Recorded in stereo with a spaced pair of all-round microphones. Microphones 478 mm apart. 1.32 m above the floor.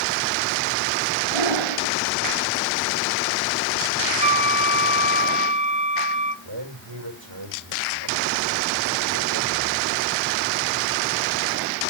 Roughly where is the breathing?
Right.